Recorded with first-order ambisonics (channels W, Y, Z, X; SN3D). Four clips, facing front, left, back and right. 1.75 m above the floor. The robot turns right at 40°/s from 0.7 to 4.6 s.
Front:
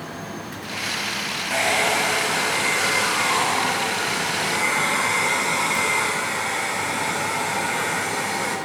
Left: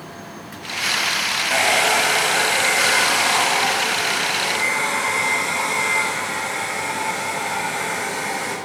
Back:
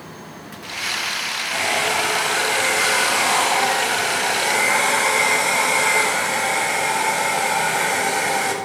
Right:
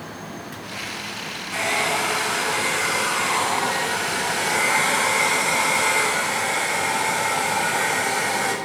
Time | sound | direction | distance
1.5 | a hair dryer | 75° left | 8 m